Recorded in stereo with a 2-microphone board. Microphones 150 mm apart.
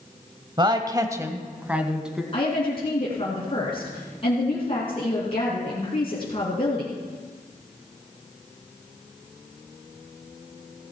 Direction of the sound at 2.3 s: 40° left (ahead or behind).